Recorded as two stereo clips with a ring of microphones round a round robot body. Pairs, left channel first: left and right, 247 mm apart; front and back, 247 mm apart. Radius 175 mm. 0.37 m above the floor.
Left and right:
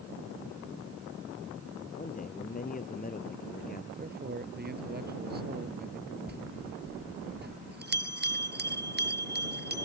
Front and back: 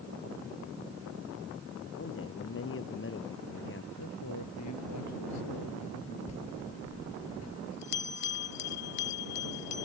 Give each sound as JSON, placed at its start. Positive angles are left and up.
{"t": 2.0, "sound": "a man speaking", "azimuth_deg": 35}
{"t": 4.0, "sound": "a man speaking", "azimuth_deg": -40}
{"t": 6.3, "sound": "a bell", "azimuth_deg": -40}